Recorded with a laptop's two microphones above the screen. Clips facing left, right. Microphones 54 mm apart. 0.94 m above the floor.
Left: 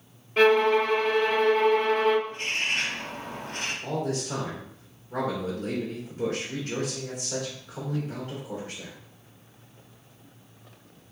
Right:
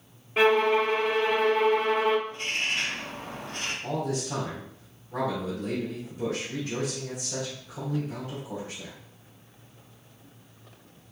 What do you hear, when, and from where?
0.4 s a violin: 15° right (ahead or behind), 0.7 m
2.3 s a bird: 55° left (ahead or behind), 1.4 m
3.8 s a man speaking: 50° left (ahead or behind), 2.5 m